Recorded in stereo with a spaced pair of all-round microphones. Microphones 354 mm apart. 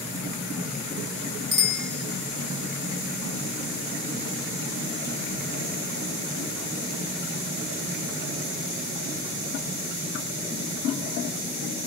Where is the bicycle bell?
60° right (ahead or behind), 2.5 m.